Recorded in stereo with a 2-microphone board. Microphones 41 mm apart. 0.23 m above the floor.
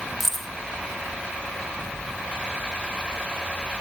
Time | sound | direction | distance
0.2 | keys jangling | 5° right (ahead or behind) | 0.9 m